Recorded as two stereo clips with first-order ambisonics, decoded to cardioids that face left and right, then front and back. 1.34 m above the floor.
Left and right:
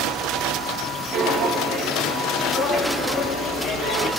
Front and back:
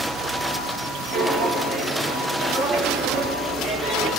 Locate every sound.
1.1 s footsteps: 90° right, 1.5 m; by 4.1 s 110° left, 1.9 m